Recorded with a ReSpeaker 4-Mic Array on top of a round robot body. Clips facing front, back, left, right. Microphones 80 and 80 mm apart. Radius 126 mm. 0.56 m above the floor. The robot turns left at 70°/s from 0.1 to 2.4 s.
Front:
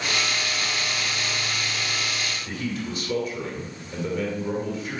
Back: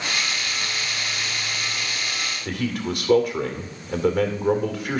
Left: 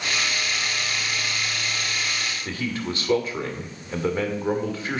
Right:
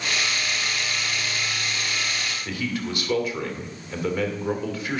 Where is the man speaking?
150° left, 2 m.